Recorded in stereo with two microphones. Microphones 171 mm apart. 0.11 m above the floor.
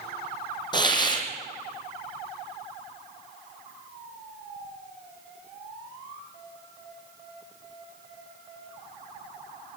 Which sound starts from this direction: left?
A hiss, at 0.7 s.